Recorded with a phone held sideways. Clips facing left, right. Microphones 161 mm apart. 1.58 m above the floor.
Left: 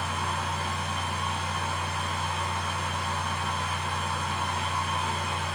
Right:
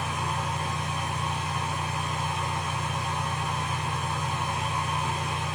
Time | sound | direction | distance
0.0 | a fan | 15° right (ahead or behind) | 2.5 m